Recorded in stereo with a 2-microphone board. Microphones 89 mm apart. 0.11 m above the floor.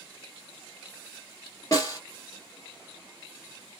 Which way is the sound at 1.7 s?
35° left (ahead or behind).